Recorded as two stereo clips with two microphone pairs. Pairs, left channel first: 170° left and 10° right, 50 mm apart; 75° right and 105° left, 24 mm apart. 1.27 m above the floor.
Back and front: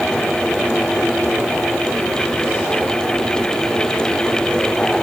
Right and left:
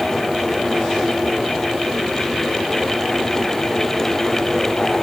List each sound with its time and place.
Only background noise.